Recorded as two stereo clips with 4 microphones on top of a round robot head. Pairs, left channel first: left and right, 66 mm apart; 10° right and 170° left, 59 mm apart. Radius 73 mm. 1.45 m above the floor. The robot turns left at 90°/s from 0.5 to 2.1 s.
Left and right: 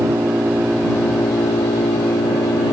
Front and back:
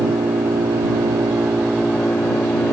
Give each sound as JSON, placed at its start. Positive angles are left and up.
{"t": 0.0, "sound": "an engine running", "azimuth_deg": -155}